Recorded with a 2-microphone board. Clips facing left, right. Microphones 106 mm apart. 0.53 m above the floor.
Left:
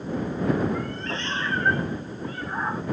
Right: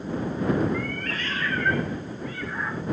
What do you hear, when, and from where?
0.7 s a cat meowing: 25° left (ahead or behind); by 2.8 s 35° left (ahead or behind)